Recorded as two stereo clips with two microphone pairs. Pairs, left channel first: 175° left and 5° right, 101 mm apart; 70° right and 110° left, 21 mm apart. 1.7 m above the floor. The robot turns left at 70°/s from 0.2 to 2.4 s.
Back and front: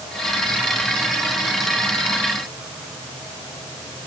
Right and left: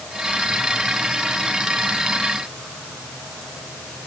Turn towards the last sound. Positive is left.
No sound to turn to.